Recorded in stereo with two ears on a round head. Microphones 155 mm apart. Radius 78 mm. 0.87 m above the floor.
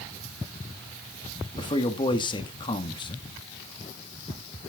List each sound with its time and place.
1.6 s a man speaking: 30° left (ahead or behind), 1.3 m